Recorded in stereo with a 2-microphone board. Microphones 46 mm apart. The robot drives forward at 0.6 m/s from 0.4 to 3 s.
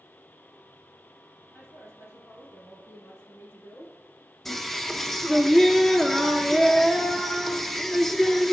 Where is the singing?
5° left (ahead or behind), 0.6 m.